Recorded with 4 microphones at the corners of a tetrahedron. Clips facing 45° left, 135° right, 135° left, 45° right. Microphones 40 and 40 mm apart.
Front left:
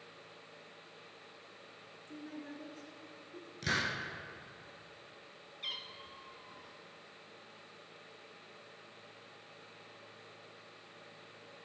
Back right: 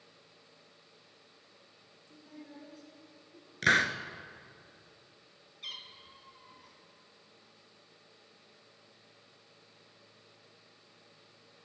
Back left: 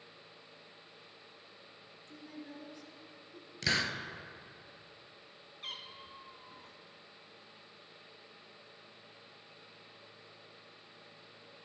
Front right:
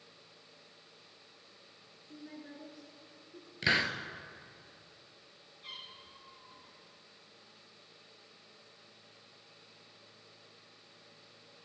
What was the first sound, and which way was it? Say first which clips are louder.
A woman speaking: front left 5 dB, even; 30° left.